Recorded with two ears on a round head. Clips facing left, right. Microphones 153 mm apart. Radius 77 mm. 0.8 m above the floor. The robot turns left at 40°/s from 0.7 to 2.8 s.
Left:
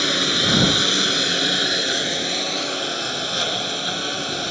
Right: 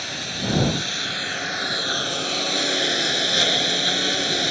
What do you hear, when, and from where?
0.0 s a lawn mower: 70° left; by 4.5 s 15° right